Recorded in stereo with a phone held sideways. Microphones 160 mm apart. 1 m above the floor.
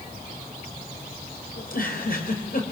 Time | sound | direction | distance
1.6 | a giggle | 65° left (ahead or behind) | 4 m